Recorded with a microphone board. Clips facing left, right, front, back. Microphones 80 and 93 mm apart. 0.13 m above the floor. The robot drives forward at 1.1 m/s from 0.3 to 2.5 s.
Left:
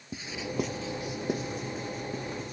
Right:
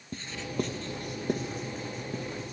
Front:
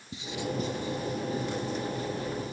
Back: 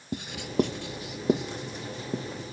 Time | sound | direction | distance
0.1 | writing | 170° left | 0.6 m